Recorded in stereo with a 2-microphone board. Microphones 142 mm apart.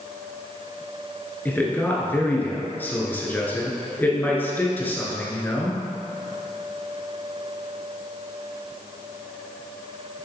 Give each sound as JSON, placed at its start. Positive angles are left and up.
{"t": 1.4, "sound": "a man speaking", "side_deg": 15, "distance_m": 1.7}